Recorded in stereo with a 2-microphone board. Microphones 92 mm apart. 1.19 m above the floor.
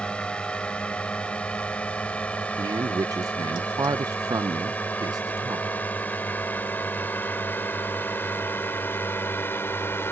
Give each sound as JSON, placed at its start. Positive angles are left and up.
{"t": 0.0, "sound": "a drone", "side_deg": 10}
{"t": 2.6, "sound": "a man speaking", "side_deg": -45}